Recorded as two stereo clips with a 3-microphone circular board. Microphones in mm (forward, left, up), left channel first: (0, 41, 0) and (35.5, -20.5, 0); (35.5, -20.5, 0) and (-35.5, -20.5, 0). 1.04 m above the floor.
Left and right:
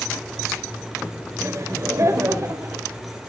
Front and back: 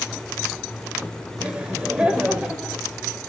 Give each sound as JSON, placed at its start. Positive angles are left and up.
{"t": 1.4, "sound": "laughter", "azimuth_deg": -105, "distance_m": 5.0}